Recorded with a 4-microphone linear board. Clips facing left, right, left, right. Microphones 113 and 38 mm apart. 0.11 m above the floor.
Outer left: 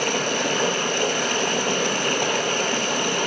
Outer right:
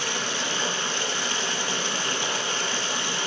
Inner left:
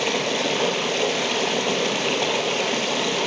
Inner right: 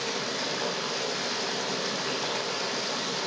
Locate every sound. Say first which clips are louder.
0.0 s running water: outer left 7 dB, inner left 9 dB; 60° left (ahead or behind), 2 m